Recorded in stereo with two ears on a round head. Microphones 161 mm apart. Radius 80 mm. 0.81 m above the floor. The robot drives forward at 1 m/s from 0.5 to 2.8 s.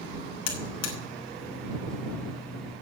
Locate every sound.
0.5 s a buzzer: 70° left (ahead or behind), 3 m; by 0.9 s 75° left (ahead or behind), 3 m